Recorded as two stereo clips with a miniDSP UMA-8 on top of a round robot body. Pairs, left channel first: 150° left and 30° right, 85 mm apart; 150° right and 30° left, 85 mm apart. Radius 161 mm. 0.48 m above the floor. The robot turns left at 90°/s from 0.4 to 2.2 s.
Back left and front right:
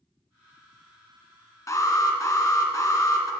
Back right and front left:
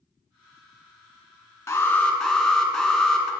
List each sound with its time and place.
1.7 s an alarm: 170° left, 1.6 m; by 3.3 s 125° left, 1.6 m